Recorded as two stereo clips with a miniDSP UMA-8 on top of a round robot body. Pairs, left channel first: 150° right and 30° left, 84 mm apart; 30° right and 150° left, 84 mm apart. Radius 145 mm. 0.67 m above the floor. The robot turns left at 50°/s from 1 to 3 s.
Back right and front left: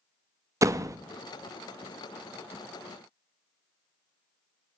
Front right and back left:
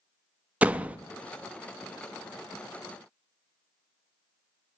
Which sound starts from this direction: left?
A door slam, at 0.6 s.